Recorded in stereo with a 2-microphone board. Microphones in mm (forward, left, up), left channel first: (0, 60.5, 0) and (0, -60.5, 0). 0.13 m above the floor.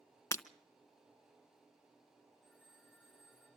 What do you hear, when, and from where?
0.3 s breaking glass: 25° left (ahead or behind), 0.7 m
2.4 s a phone ringing: centre (ahead or behind), 6.5 m